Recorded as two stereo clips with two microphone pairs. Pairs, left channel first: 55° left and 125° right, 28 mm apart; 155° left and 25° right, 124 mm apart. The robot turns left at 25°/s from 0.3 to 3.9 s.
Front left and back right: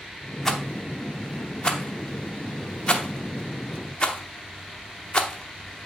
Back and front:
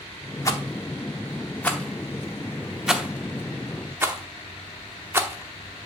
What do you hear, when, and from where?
0.5 s a rattle: 120° left, 0.8 m; by 5.9 s 35° left, 0.8 m